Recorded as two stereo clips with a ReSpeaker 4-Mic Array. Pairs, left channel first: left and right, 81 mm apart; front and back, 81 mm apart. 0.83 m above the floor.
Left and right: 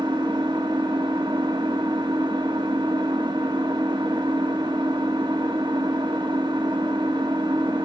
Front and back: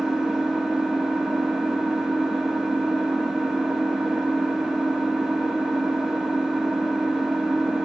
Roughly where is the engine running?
Right.